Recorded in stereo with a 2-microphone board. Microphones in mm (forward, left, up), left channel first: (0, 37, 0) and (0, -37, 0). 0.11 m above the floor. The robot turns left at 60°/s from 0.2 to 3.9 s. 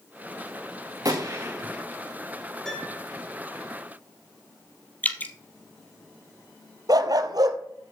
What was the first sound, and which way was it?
A gunshot, 125° right.